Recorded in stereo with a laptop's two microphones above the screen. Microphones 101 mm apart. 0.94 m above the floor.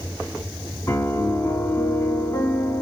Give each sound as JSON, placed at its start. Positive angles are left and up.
{"t": 0.9, "sound": "a piano", "side_deg": 30, "distance_m": 1.7}